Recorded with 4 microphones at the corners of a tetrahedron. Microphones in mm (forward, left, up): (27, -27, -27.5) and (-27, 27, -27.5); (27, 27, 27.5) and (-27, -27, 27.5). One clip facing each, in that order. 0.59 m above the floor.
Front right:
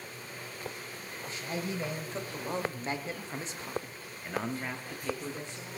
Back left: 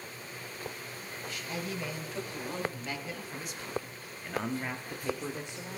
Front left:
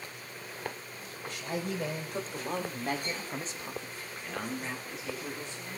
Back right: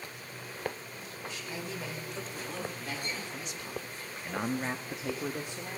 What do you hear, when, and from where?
1.3 s a man speaking: 10° left, 3.5 m; by 5.8 s 160° right, 2.0 m